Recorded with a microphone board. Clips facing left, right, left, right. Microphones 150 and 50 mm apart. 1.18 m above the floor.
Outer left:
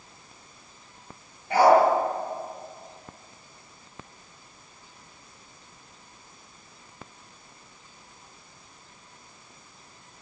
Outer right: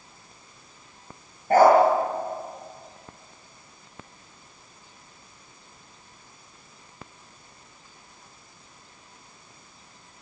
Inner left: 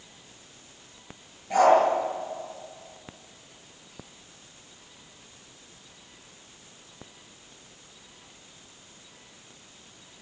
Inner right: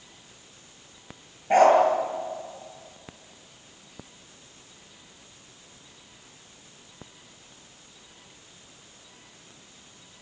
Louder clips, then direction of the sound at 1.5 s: Outer right 2 dB, inner right 2 dB; 45° right (ahead or behind).